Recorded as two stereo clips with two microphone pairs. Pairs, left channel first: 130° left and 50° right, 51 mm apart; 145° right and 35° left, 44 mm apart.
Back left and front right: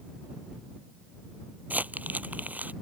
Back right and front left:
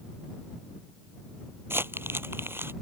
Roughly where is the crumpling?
Ahead.